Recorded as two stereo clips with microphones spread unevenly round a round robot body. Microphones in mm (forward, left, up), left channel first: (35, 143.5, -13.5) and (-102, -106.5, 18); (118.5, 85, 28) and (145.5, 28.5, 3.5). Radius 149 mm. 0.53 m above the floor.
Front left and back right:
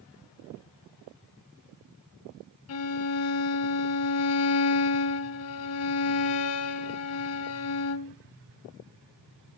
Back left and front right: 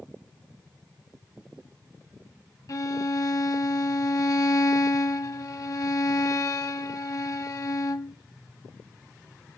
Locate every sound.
2.7 s a violin: 100° left, 1.2 m